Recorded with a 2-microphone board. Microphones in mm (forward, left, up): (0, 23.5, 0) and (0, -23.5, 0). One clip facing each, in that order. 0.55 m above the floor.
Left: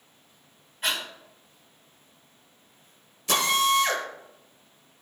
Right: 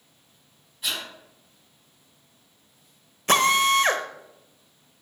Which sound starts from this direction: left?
Breathing, at 0.8 s.